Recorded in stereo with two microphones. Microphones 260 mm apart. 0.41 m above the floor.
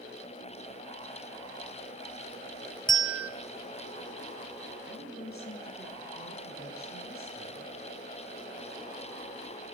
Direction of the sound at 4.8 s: 40° left (ahead or behind).